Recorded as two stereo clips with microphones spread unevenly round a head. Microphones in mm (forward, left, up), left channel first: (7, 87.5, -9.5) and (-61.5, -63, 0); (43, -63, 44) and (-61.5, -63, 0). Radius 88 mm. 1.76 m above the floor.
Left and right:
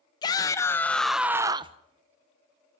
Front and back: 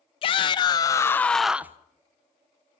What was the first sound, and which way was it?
A shout, 5° right.